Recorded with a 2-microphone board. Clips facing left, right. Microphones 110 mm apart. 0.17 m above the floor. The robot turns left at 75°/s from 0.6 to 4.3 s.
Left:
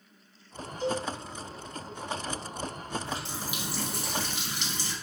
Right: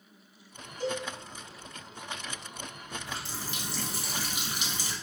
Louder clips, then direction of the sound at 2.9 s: Left 2 dB; 25° left (ahead or behind).